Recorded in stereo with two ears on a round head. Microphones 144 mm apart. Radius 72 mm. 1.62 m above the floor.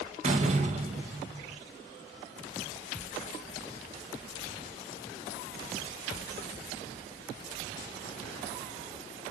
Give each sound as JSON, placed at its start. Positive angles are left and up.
{"t": 0.2, "sound": "a door slam", "side_deg": -45, "distance_m": 1.5}